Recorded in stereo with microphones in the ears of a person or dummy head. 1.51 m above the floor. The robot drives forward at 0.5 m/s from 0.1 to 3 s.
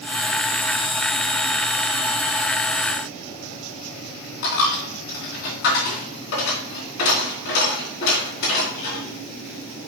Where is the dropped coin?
65° left (ahead or behind), 3 m.